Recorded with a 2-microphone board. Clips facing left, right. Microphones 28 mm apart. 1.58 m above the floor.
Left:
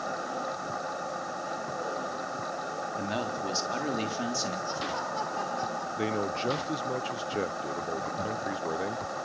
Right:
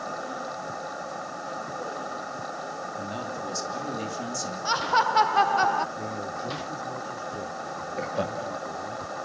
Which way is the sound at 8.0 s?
70° right (ahead or behind).